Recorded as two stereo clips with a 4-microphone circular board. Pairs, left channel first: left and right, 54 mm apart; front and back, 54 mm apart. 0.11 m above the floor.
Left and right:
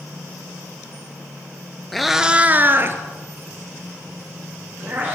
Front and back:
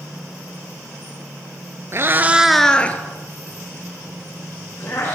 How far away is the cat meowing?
About 0.9 m.